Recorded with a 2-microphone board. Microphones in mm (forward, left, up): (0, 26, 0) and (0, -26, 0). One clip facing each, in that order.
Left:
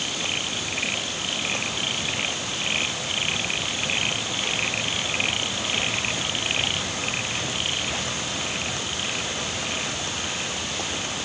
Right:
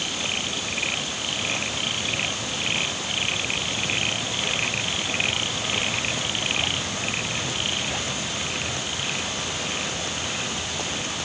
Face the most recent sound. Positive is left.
No sound to turn to.